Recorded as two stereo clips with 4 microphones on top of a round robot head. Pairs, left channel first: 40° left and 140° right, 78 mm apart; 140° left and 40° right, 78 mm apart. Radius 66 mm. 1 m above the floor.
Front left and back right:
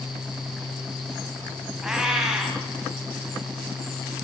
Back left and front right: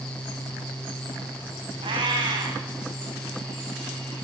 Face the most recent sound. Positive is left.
turn(degrees=-60)